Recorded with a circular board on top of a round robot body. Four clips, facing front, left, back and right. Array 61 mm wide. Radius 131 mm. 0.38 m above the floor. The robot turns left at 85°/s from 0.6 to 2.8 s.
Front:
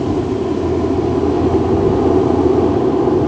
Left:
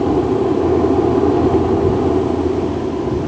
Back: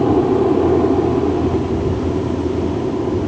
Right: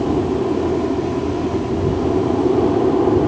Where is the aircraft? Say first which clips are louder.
Left 3 dB, back 3 dB; 145° left; by 3.3 s 40° right.